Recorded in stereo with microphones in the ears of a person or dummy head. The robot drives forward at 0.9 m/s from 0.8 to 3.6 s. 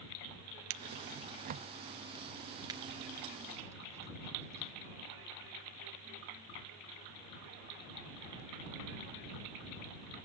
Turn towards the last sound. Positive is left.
turn(degrees=-10)  # may be behind; listen again after turning